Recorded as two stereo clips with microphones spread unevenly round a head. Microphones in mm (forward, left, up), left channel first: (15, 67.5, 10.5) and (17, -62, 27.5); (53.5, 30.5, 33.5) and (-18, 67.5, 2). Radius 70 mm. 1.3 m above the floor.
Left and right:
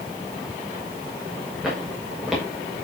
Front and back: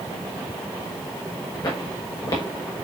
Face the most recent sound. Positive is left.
turn(degrees=-5)